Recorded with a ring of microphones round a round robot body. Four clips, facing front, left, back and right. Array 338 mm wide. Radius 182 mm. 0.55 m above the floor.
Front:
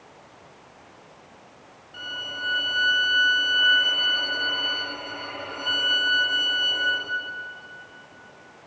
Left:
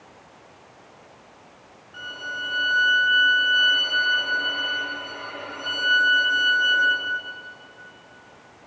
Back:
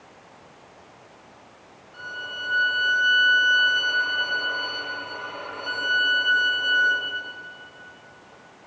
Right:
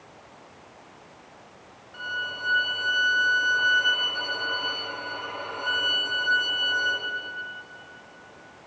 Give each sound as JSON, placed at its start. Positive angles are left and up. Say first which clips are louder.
{"t": 1.9, "sound": "a violin", "louder": "right 1 dB, back 1 dB", "azimuth_deg": 35, "distance_m": 3.0}